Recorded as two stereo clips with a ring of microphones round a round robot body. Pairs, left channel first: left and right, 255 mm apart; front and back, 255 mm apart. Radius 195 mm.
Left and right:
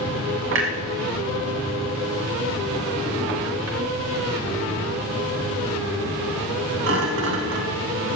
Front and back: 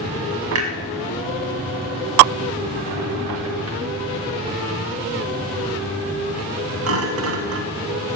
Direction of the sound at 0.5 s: 140° right.